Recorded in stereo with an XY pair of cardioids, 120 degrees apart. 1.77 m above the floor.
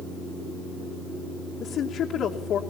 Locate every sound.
1.6 s a woman speaking: 60° left, 2.5 m